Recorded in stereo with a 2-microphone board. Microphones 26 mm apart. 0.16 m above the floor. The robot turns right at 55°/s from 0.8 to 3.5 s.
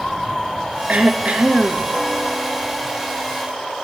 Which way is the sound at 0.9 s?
100° right.